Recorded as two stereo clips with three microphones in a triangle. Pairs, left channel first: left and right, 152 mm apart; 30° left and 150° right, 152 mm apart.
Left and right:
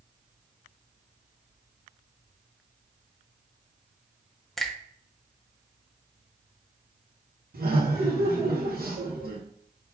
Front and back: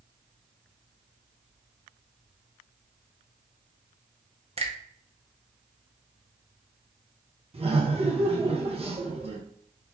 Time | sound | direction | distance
4.6 | a finger snap | straight behind | 0.7 m
7.5 | laughter | 100° right | 1.4 m